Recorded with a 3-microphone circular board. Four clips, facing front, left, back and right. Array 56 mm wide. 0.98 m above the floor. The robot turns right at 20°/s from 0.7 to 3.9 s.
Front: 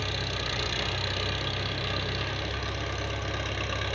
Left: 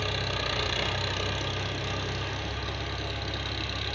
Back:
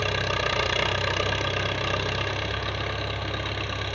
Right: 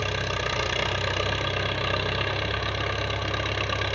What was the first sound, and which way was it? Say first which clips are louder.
An engine running: right 3 dB, back 7 dB; 155° right.